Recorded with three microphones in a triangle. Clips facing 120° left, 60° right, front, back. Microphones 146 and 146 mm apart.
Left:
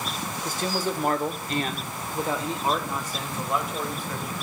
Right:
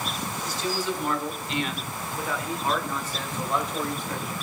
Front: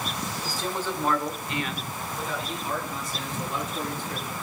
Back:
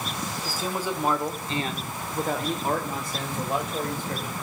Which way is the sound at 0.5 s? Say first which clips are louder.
Left 2 dB, back 2 dB; 95° left.